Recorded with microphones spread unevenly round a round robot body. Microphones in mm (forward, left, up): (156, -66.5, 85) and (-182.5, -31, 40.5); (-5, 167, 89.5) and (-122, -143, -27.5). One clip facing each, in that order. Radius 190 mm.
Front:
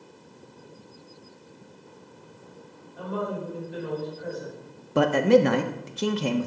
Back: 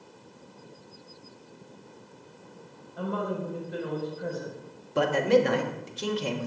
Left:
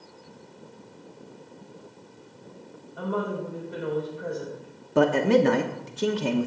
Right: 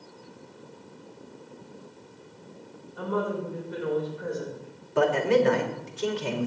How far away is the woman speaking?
About 4.5 m.